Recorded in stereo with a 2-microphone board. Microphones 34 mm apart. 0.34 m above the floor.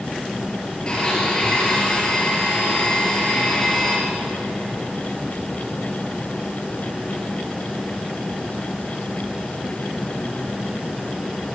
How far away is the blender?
About 3 m.